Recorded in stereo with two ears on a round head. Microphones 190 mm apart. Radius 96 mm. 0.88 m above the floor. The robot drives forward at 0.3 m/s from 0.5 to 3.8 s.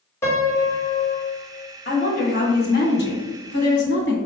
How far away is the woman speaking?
About 1.5 m.